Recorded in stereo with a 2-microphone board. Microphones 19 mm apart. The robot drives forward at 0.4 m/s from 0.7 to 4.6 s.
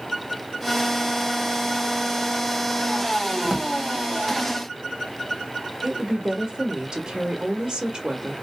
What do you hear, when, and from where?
3.4 s a drawer: 20° right (ahead or behind), 0.8 m; by 3.7 s 15° right (ahead or behind), 0.9 m
5.8 s a woman speaking: 40° right (ahead or behind), 0.9 m